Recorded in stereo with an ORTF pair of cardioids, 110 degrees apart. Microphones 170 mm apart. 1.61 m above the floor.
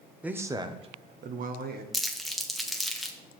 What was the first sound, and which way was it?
A man speaking, 10° right.